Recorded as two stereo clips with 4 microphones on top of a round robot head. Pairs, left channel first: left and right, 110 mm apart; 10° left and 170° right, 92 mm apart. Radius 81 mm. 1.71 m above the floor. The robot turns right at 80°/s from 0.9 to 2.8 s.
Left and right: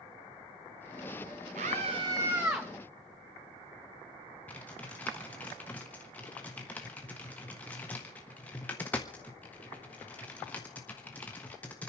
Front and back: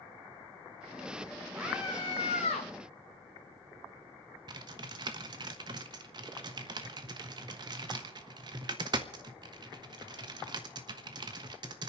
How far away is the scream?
About 1.8 m.